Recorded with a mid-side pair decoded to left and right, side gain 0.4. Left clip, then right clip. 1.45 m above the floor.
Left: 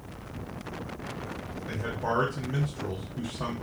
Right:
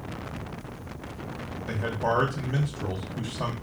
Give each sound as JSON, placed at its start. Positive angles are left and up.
{"t": 1.7, "sound": "a man speaking", "azimuth_deg": -35, "distance_m": 1.0}